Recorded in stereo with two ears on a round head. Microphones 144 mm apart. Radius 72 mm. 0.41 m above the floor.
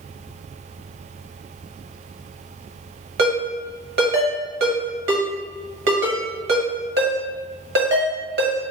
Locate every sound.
3.2 s a ringtone: 70° right (ahead or behind), 1.2 m